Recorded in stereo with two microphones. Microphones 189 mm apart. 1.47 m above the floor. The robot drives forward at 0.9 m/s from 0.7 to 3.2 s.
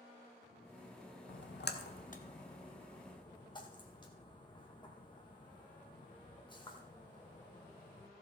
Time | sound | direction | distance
1.3 | a splash | 85° left | 0.8 m